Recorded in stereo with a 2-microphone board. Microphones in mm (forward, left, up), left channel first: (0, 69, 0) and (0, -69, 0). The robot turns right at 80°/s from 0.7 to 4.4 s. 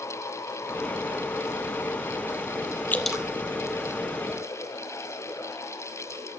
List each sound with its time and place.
2.9 s dripping: 15° left (ahead or behind), 1.0 m; by 3.2 s 15° right (ahead or behind), 1.0 m